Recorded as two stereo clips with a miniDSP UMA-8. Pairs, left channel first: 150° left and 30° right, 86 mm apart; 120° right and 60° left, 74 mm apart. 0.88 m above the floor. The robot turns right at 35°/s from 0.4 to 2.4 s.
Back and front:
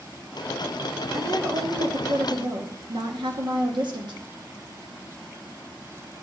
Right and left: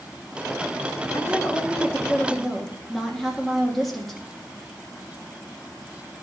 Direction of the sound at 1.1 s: 75° right.